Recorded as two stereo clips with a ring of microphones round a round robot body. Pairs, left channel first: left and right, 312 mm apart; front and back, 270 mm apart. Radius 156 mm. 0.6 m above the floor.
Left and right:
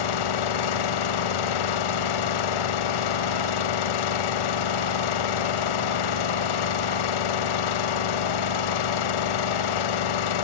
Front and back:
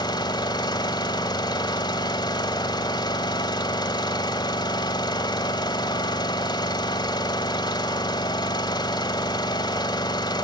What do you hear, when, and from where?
0.0 s an engine running: 75° left, 1.5 m